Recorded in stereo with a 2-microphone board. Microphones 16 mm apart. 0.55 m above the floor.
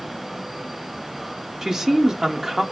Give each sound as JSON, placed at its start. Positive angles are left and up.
{"t": 1.6, "sound": "a man speaking", "side_deg": -35, "distance_m": 0.9}